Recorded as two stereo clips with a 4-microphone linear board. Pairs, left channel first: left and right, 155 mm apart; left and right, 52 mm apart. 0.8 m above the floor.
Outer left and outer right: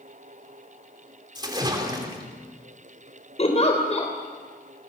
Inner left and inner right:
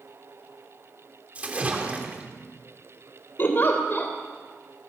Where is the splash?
25° right (ahead or behind), 3 m.